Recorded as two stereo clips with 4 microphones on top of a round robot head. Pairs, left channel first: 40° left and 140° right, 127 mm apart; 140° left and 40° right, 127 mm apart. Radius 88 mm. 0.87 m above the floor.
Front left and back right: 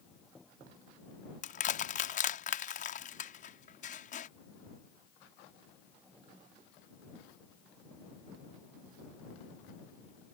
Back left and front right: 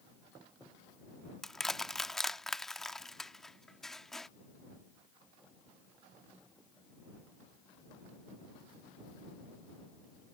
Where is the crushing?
50° left.